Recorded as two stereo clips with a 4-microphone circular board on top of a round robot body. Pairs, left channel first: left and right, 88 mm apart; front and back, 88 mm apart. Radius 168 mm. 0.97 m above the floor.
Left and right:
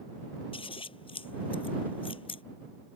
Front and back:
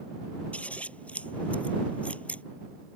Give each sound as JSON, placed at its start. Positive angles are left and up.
{"t": 0.5, "sound": "scissors", "azimuth_deg": 75}